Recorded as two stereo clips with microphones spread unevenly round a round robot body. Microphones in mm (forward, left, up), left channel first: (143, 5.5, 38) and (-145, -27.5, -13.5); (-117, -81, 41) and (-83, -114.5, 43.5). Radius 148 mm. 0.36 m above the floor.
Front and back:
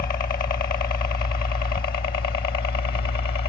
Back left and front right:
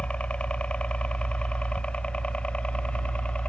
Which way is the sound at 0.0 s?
70° left.